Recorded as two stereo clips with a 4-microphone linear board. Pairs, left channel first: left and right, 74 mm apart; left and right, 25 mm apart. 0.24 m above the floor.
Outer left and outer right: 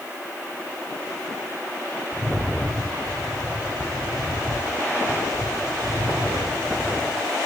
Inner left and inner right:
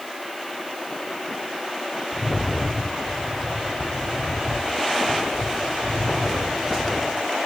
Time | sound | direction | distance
2.1 | a rattle | 55° right (ahead or behind) | 2.5 m